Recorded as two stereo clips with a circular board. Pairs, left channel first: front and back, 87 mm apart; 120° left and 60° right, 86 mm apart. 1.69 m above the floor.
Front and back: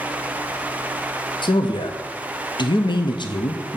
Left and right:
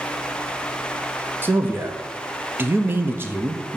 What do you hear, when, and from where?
1.4 s a man speaking: straight ahead, 0.6 m